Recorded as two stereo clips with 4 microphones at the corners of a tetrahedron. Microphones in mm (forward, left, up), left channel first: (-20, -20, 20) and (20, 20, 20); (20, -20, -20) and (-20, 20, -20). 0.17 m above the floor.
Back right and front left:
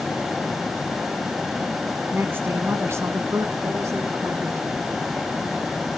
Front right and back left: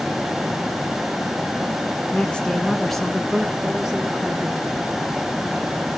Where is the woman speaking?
10° left, 1.5 m; by 4.7 s 65° left, 2.5 m.